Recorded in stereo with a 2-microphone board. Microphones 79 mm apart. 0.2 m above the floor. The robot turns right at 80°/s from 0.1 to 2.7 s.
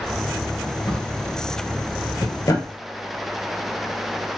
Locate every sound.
0.9 s a drawer: 5° left (ahead or behind), 1.1 m; by 2.7 s 30° left (ahead or behind), 1.1 m